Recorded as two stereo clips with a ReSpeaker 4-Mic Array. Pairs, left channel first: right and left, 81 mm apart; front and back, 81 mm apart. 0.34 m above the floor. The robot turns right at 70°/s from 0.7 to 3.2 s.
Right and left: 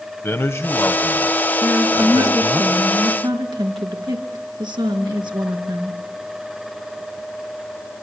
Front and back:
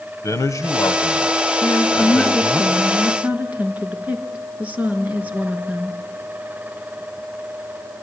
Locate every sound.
0.2 s a man speaking: 35° right, 1.5 m; by 2.6 s 95° left, 1.5 m
1.6 s a woman speaking: straight ahead, 4 m; by 6.0 s 110° left, 4 m